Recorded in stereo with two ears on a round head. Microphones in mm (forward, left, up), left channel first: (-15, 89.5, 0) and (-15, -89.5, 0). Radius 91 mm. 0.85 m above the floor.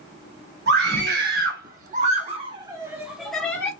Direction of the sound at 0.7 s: 60° right (ahead or behind).